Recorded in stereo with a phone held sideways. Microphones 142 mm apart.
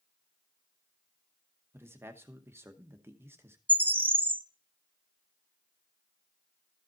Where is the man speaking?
15° right (ahead or behind), 0.9 m.